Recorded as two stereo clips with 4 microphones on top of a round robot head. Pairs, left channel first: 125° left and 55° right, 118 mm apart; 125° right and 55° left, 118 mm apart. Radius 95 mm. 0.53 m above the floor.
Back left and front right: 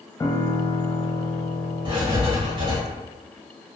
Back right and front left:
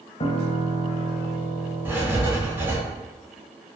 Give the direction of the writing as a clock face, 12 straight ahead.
1 o'clock.